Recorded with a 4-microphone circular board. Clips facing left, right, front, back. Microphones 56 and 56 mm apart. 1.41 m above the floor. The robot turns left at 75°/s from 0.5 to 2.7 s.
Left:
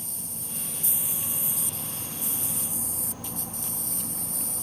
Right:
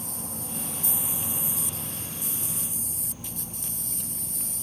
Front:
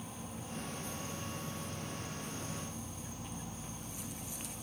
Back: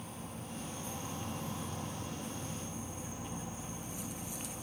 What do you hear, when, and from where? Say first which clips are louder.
0.0 s an insect: right 5 dB, even; 85° right, 2 m; by 4.6 s 110° left, 2 m